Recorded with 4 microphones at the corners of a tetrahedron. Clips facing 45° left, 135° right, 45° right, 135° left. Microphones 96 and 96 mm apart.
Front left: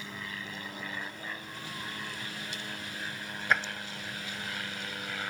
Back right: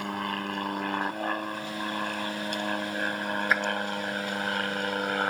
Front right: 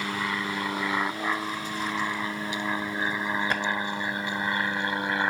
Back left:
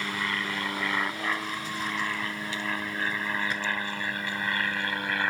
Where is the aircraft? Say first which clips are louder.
Back right 10 dB, front right 2 dB; 120° right; by 5.3 s 110° right.